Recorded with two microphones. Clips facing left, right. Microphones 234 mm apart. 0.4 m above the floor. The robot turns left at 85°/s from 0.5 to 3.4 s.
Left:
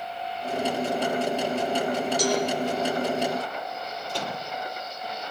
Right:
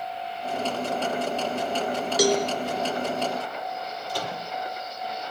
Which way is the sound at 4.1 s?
25° left (ahead or behind).